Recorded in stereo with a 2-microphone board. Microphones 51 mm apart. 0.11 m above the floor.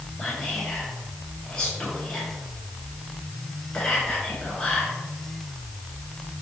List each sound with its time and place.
0.2 s whispering: 15° left (ahead or behind), 1.1 m